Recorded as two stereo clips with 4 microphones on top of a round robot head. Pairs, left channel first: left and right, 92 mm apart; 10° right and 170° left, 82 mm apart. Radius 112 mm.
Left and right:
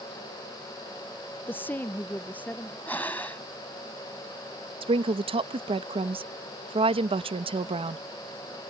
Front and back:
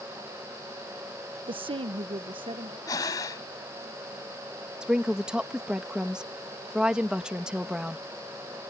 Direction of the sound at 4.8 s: 110° right.